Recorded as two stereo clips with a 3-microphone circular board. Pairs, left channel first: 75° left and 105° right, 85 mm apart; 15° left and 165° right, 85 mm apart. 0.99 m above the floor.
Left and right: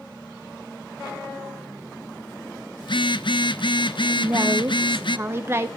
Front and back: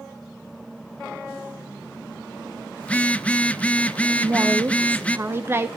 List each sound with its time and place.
2.8 s a phone buzzing: 90° left, 0.7 m
4.2 s a woman speaking: 135° right, 0.9 m